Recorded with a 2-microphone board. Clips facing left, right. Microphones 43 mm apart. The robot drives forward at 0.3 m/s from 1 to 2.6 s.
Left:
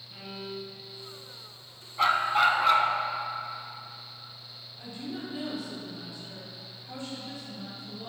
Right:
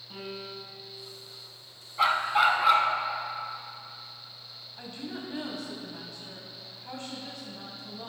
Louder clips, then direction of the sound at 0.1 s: Even; 85° right.